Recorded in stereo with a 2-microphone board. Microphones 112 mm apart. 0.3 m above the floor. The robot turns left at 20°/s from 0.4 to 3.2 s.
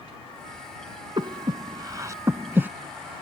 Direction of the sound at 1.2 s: 50° right (ahead or behind).